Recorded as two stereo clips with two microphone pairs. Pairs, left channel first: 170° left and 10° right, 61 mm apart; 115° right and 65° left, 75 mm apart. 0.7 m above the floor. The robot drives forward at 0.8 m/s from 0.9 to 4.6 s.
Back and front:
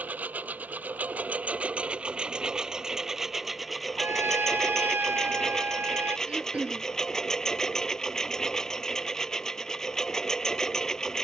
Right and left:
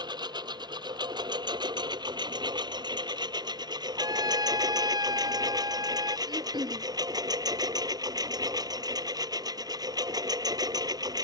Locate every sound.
0.0 s a lawn mower: 55° left; by 11.2 s 90° left
4.0 s a trumpet: 35° left; by 6.2 s 45° left
6.3 s throat clearing: 60° left